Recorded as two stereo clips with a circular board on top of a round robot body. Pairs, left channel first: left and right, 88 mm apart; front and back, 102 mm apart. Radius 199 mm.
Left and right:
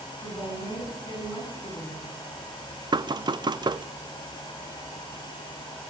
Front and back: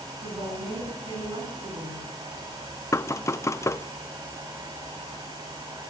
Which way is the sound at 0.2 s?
145° left.